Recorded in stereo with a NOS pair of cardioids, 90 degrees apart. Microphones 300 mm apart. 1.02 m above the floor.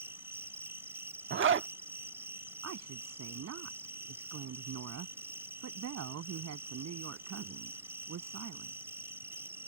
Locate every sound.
0.0 s an insect: 10° right
1.3 s a zipper: 40° right
2.6 s a woman speaking: 60° right